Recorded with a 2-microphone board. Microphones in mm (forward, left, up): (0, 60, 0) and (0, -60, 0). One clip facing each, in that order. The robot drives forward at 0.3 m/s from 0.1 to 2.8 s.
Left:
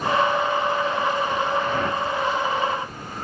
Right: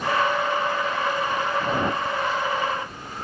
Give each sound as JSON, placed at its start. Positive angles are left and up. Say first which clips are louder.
{"t": 1.6, "sound": "a whoosh", "louder": "even", "side_deg": -20}